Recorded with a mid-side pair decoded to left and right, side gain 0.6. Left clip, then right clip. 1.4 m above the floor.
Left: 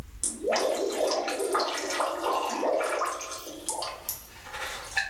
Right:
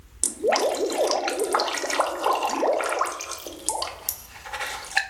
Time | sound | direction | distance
0.2 | dripping | 45° right | 0.5 m